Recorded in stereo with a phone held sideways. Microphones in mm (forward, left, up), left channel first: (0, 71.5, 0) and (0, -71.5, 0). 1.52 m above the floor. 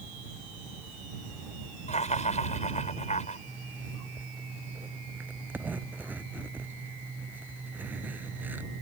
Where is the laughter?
55° left (ahead or behind).